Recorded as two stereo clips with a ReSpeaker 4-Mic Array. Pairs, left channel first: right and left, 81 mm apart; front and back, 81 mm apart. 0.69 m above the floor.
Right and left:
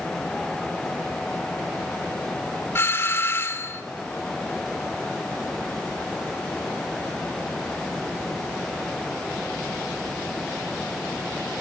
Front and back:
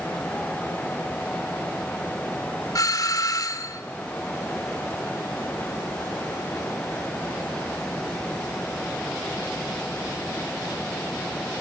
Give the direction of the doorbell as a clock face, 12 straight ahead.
1 o'clock.